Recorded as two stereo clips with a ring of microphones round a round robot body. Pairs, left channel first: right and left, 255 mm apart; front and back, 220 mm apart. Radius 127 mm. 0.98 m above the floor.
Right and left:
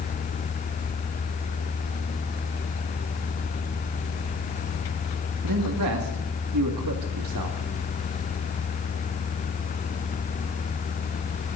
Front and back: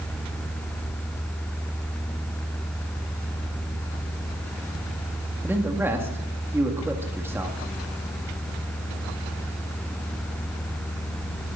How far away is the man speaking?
About 2 m.